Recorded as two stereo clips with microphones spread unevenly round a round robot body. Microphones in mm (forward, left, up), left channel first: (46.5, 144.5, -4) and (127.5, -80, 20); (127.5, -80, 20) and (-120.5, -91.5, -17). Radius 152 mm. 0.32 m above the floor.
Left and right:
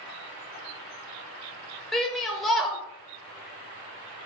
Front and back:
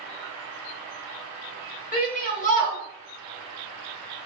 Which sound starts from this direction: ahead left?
A shout, at 1.9 s.